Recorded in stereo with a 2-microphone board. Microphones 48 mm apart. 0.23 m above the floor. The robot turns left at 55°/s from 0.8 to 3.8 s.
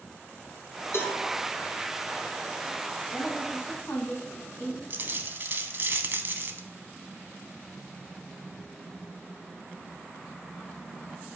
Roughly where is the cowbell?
Left.